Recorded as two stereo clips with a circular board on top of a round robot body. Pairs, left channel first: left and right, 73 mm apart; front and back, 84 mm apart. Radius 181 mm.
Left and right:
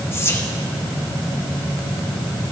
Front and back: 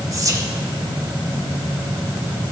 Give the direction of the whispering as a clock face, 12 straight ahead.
7 o'clock.